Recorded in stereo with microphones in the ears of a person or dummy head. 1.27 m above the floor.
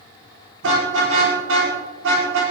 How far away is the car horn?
About 8.5 m.